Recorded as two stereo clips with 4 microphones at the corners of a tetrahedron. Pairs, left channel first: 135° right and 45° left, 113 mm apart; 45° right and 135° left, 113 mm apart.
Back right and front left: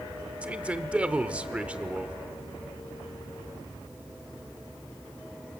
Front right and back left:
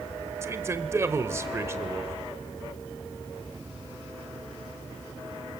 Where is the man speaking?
110° left, 1.0 m.